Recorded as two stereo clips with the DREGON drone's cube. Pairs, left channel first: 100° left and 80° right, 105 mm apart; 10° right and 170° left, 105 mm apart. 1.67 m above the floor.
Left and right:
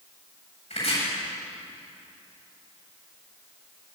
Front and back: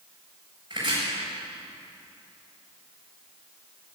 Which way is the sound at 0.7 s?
120° left.